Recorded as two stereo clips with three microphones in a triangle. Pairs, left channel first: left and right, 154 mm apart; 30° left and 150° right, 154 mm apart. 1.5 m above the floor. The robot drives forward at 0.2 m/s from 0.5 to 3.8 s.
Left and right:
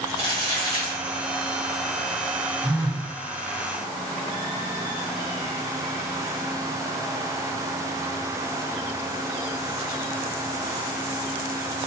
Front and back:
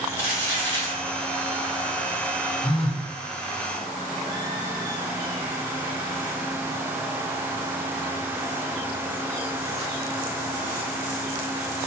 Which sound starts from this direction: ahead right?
A phone buzzing, at 2.6 s.